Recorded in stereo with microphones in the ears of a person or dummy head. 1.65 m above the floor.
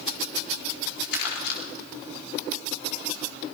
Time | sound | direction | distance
1.1 | crumpling | 65° left (ahead or behind) | 4 m